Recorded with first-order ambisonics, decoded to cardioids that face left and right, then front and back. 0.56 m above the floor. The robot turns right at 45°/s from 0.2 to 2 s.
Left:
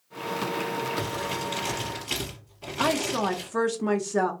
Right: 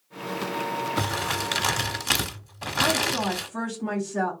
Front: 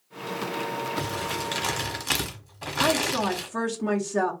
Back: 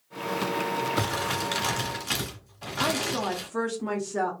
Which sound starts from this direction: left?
A woman speaking, at 2.8 s.